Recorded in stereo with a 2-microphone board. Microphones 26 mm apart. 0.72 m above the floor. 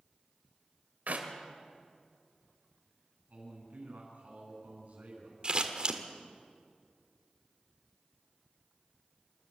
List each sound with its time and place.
1.1 s a clap: 80° right, 2.5 m
3.3 s a man speaking: 60° right (ahead or behind), 7.5 m
5.4 s scissors: 35° right (ahead or behind), 1.7 m